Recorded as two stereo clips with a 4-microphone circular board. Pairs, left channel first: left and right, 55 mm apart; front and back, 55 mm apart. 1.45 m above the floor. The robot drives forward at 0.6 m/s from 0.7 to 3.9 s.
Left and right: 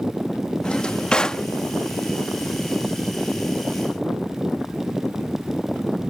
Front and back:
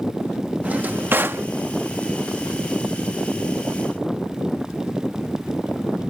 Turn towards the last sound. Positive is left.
turn(degrees=175)